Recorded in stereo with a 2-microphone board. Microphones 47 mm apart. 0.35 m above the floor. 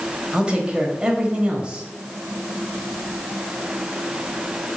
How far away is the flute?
I don't hear a flute.